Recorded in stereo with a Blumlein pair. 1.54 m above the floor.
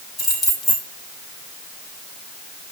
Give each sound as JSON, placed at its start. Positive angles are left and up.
{"t": 0.2, "sound": "keys jangling", "azimuth_deg": 15, "distance_m": 5.5}